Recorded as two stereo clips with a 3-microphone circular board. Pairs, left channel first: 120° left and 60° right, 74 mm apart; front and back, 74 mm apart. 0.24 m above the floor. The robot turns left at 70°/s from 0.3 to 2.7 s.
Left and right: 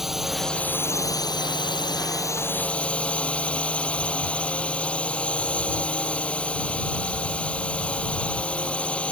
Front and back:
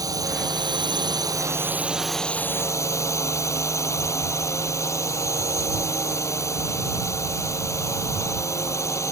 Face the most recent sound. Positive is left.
turn(degrees=45)